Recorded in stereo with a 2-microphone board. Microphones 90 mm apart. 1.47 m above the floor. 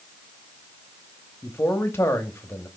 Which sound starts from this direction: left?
A man speaking, at 1.4 s.